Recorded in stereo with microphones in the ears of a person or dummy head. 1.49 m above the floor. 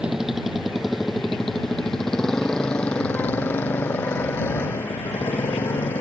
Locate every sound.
0.0 s a motorcycle: 5° right (ahead or behind); by 6.0 s 15° left (ahead or behind)